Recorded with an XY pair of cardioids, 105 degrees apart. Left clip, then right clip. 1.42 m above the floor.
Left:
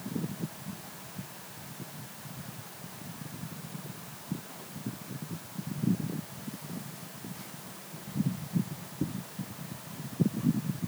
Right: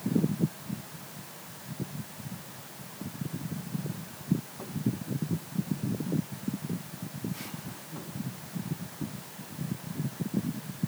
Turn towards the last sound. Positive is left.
No sound to turn to.